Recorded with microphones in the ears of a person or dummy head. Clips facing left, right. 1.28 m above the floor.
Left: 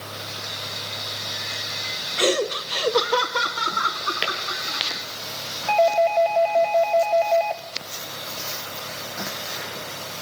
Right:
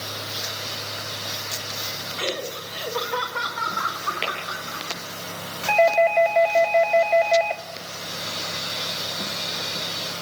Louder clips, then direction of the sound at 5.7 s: Even; 20° right (ahead or behind).